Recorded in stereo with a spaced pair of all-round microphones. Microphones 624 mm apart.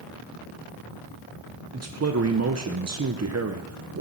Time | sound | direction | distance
1.7 | a man speaking | 25° right (ahead or behind) | 0.5 m